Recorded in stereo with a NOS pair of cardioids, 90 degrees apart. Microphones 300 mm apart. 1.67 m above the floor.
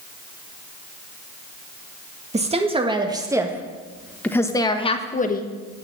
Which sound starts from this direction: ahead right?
A woman speaking, at 2.3 s.